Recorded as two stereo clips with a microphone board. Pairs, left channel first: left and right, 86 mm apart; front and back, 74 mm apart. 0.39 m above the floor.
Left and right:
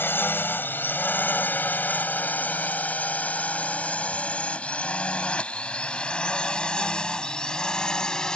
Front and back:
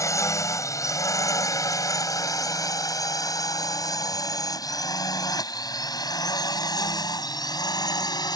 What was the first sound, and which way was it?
A drone, 30° left.